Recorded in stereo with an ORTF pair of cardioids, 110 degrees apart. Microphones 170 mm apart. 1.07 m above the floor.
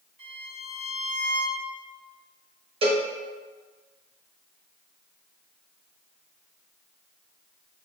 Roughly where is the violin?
Ahead right.